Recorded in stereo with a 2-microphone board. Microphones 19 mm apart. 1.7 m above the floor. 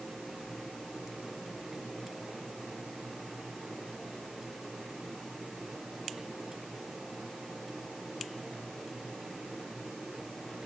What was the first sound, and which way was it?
Only background noise.